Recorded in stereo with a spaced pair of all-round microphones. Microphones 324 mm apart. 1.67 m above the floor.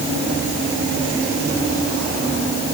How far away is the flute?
I don't hear a flute.